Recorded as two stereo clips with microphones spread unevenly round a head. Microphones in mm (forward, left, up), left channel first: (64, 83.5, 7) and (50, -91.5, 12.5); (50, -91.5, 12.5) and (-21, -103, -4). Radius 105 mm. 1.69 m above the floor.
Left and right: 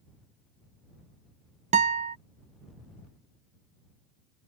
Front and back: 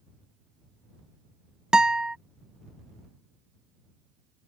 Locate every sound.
1.7 s a guitar: 80° right